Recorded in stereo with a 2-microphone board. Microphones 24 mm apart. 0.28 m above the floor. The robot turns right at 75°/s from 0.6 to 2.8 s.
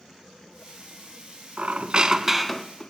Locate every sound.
1.6 s a squeak: 70° right, 0.5 m; by 2.9 s 25° left, 0.5 m